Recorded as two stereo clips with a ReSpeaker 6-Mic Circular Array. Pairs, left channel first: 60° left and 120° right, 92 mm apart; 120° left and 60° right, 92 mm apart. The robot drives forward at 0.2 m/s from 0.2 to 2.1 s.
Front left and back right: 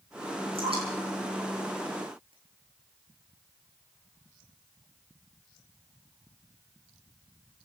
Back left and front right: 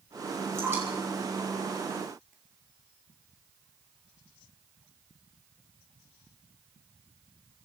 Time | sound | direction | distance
0.6 | dripping | 125° right | 10 m